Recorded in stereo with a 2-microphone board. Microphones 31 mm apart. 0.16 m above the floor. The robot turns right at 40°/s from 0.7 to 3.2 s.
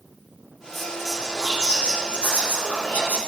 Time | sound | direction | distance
0.7 | whispering | 10° right | 4.5 m